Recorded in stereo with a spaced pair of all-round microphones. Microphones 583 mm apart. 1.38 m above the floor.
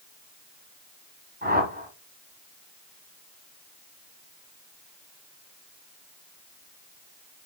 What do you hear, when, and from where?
1.4 s a whoosh: 15° right (ahead or behind), 2.5 m